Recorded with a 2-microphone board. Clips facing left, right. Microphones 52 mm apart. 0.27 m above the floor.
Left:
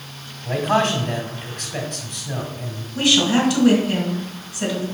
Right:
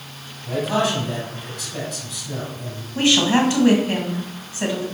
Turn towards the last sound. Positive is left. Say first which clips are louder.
# right 1 dB
turn(degrees=-30)  # may be behind; listen again after turning